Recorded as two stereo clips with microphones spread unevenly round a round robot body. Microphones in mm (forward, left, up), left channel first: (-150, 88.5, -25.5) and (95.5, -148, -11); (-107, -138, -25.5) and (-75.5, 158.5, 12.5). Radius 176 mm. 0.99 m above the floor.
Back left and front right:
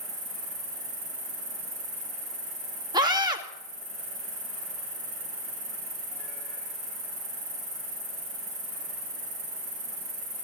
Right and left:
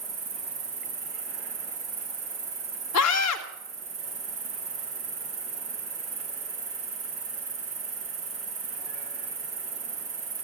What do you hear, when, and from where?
0.0 s an insect: 20° left, 7.5 m
2.9 s a scream: 125° right, 1.8 m